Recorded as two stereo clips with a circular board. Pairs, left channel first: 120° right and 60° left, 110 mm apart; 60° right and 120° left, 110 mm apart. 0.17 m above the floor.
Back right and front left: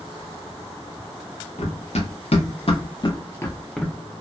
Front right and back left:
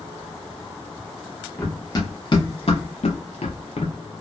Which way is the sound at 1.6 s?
120° right.